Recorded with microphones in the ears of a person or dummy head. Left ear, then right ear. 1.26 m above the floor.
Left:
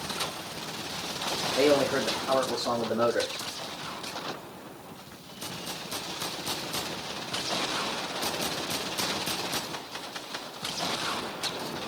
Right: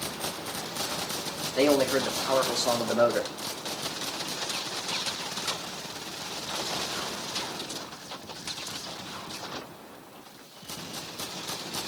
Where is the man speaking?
75° right (ahead or behind), 2.5 m.